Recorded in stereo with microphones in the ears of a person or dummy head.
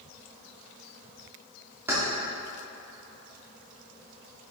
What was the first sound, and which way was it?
Keys jangling, 15° right (ahead or behind).